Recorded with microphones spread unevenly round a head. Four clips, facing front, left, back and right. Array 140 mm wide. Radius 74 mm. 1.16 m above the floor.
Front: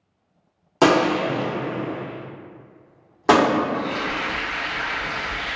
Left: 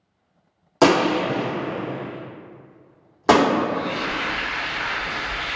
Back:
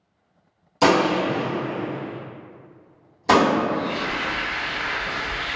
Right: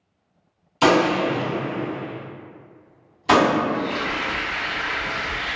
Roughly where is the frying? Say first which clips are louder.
Right 1 dB, even; ahead.